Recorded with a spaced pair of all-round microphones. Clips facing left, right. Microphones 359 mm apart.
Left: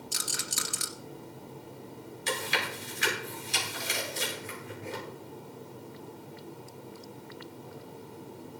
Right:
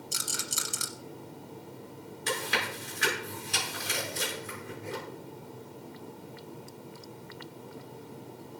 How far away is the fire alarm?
I don't hear a fire alarm.